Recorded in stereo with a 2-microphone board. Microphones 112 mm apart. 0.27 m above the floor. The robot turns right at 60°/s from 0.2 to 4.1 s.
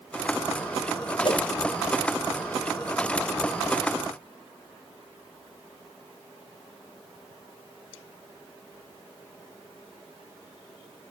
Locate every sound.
1.2 s a whoosh: 45° left (ahead or behind), 0.8 m; by 1.4 s 55° left (ahead or behind), 0.8 m